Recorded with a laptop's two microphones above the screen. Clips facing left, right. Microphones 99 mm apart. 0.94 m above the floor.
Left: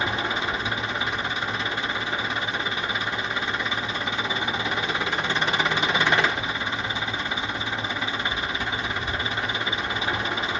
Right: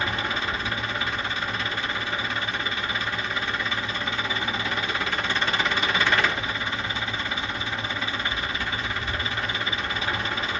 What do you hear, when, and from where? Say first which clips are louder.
0.0 s an engine running: left 1 dB; 20° left (ahead or behind), 0.8 m